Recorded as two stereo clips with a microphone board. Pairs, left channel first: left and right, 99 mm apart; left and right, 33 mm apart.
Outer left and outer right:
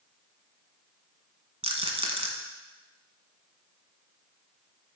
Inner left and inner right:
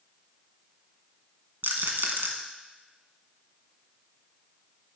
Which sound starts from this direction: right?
A rattle, at 1.6 s.